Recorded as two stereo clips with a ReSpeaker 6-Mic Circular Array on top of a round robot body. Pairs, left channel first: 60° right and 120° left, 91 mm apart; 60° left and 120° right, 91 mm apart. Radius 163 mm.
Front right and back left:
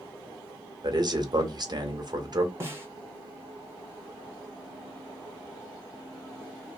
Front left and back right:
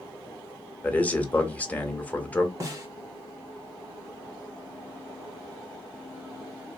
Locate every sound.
0.8 s a man speaking: 130° left, 1.1 m
2.6 s a snare drum: straight behind, 0.6 m